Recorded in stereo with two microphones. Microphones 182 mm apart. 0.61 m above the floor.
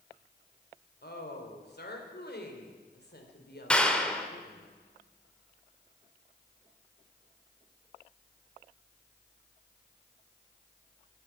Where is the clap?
5° left (ahead or behind), 1.5 m.